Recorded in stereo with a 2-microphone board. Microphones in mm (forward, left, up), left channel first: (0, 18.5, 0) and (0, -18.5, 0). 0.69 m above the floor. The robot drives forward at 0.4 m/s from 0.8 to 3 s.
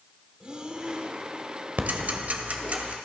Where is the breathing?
25° right (ahead or behind), 1.5 m; by 1.2 s 30° right (ahead or behind), 1.3 m.